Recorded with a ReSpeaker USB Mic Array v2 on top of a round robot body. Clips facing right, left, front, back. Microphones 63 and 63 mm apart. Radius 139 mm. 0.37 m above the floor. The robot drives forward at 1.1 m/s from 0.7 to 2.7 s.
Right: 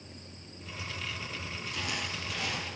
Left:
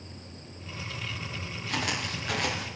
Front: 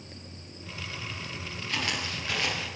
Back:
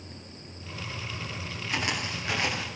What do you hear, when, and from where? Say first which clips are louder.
1.7 s footsteps: left 6 dB, back 1 dB; 105° left, 8 m; by 2.7 s 110° left, 8 m